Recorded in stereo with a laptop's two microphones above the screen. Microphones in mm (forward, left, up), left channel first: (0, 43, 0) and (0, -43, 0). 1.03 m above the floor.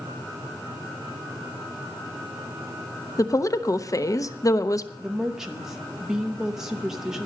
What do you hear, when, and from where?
3.2 s a woman speaking: 40° left (ahead or behind), 0.9 m
5.0 s a woman speaking: 5° right (ahead or behind), 0.9 m